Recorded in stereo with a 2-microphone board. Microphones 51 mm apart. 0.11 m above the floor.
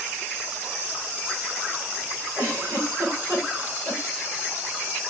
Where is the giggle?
75° right (ahead or behind), 4.5 m.